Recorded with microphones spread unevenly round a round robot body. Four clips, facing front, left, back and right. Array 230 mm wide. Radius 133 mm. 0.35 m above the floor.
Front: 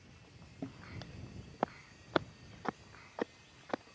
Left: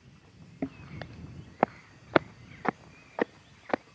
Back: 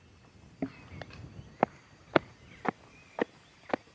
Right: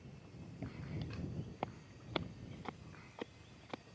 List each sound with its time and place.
0.6 s footsteps: 115° left; by 3.8 s 110° left